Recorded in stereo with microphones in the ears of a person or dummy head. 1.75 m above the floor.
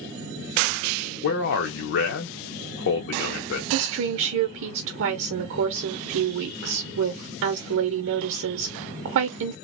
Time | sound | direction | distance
1.2 | a man speaking | 60° left (ahead or behind) | 0.6 m
3.7 | a woman speaking | 60° right (ahead or behind) | 0.7 m